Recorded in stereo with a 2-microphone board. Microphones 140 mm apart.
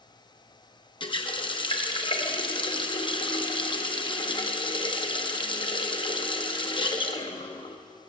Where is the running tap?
35° left (ahead or behind), 0.7 m.